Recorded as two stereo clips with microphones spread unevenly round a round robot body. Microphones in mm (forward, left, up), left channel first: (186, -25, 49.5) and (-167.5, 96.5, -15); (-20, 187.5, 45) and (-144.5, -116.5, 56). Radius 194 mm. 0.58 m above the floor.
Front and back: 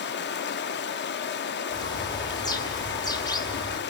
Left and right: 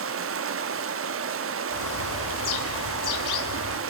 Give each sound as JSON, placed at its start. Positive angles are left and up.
{"t": 0.0, "sound": "running water", "azimuth_deg": -80, "distance_m": 0.9}
{"t": 1.7, "sound": "a bird", "azimuth_deg": 65, "distance_m": 2.0}